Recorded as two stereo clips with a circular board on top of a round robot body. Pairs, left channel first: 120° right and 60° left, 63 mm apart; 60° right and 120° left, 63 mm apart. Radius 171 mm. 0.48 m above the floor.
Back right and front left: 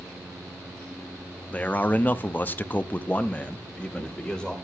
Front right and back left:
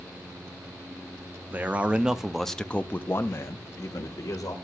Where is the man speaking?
175° left, 1.1 m; by 4.5 s 40° right, 1.5 m.